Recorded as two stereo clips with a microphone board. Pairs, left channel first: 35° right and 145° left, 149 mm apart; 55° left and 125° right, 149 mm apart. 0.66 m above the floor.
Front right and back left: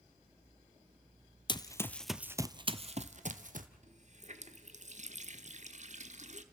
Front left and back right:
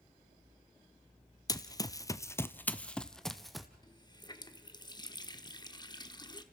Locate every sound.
1.5 s running footsteps: 5° left, 0.8 m; by 3.7 s 145° left, 1.3 m
3.8 s a running tap: 115° left, 0.9 m